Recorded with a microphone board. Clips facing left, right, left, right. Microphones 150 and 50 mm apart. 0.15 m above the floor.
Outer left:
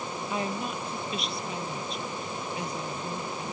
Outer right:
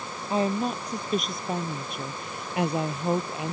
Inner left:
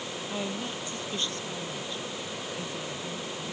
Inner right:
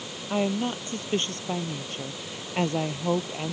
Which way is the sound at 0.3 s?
30° right (ahead or behind).